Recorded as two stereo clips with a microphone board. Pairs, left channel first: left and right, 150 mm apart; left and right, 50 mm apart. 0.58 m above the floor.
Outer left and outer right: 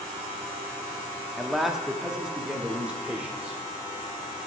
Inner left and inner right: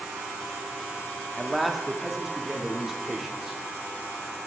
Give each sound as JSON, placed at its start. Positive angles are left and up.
{"t": 1.4, "sound": "a man speaking", "side_deg": 0, "distance_m": 0.6}